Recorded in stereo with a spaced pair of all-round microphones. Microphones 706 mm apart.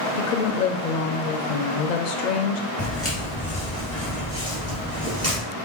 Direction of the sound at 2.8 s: 20° left (ahead or behind).